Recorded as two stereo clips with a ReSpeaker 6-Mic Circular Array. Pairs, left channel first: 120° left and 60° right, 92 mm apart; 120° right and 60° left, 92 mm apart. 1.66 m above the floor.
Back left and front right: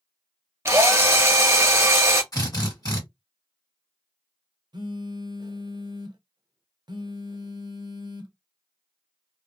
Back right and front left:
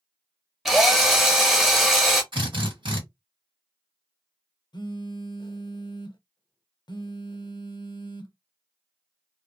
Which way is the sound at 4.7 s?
90° right.